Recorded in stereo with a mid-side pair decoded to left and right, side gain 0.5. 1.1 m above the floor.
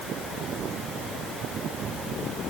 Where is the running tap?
I don't hear a running tap.